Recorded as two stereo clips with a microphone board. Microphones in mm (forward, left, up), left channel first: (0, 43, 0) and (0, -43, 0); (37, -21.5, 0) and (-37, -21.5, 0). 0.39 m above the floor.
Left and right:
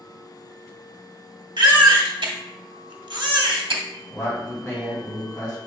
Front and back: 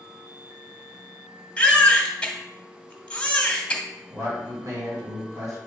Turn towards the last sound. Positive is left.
turn(degrees=160)